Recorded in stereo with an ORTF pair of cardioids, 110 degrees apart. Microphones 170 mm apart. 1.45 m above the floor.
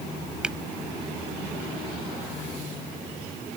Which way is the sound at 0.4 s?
5° right.